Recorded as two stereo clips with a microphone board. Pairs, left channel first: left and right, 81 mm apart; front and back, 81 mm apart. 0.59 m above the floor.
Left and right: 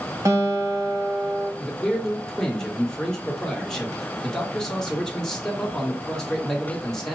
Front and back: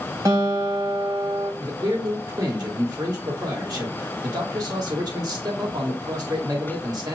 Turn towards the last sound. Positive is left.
turn(degrees=170)